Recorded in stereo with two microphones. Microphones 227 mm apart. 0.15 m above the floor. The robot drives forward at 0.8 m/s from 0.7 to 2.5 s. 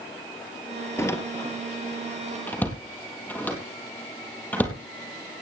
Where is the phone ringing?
No phone ringing in this recording.